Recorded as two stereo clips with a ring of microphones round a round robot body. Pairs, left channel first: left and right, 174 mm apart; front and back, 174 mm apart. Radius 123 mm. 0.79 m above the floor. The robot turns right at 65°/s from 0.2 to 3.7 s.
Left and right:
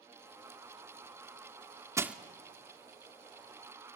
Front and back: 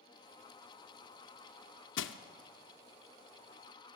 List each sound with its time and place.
2.0 s crushing: 15° right, 0.6 m; by 2.2 s straight ahead, 0.6 m